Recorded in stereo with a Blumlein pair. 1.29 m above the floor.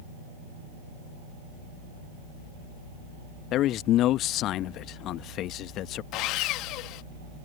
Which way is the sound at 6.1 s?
40° left.